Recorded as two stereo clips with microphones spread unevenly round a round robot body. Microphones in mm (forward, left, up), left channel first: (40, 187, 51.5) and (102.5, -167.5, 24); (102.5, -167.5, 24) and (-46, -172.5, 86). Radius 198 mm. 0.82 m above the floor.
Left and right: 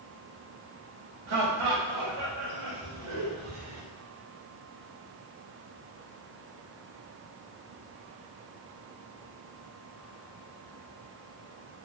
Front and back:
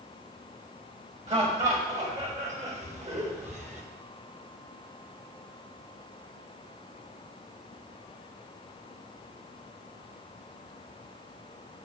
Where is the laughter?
130° right, 5.5 m.